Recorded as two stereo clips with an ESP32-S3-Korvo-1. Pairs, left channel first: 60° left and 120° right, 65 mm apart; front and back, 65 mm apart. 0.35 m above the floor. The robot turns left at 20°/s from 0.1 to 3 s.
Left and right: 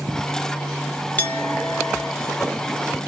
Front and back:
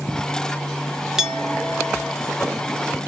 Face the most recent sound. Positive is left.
turn(degrees=70)